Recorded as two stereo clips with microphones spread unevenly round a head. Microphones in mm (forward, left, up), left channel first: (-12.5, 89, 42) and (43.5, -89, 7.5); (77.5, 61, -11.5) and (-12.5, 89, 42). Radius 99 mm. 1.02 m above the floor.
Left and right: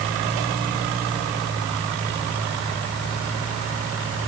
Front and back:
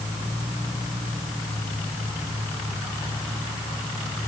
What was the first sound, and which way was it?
Only background noise.